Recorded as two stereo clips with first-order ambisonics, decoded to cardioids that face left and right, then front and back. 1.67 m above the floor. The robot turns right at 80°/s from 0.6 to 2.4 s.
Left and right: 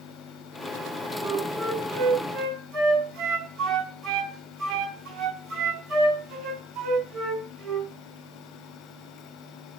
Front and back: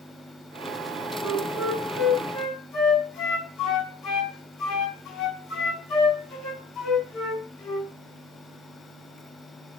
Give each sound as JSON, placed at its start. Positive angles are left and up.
{"t": 1.2, "sound": "a flute", "azimuth_deg": -130, "distance_m": 4.5}